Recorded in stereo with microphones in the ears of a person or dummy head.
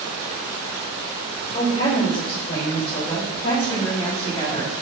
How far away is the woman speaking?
About 3 m.